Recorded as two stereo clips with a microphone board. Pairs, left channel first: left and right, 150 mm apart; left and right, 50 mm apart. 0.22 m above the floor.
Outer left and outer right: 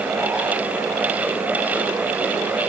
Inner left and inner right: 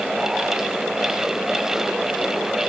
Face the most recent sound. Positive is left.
No sound to turn to.